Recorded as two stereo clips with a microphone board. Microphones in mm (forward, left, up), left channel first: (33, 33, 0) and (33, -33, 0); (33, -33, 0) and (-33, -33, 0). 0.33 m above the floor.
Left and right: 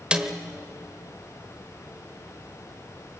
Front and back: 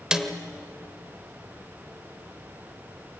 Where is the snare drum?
125° right, 1.3 m.